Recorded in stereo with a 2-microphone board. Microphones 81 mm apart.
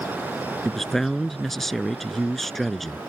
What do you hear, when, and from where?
0.7 s a man speaking: 5° left (ahead or behind)